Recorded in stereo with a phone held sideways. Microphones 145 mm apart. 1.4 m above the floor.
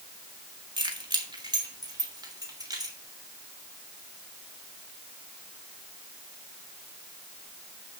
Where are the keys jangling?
30° right (ahead or behind), 1.9 m; by 3.0 s 25° right (ahead or behind), 4 m.